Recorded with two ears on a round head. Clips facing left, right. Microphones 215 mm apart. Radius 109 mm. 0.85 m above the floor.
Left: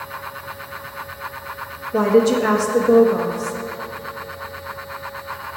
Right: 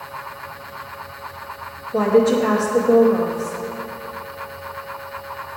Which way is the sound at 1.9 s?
20° left (ahead or behind).